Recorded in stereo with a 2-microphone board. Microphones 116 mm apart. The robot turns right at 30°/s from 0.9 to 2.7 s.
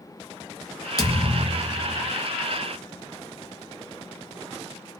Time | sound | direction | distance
1.0 | a thud | 40° left | 0.7 m